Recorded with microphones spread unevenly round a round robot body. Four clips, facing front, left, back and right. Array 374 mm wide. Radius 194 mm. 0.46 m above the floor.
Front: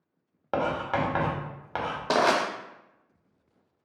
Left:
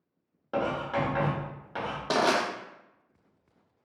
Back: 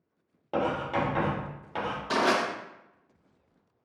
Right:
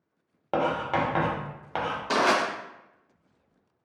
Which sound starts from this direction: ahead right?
Writing, at 0.5 s.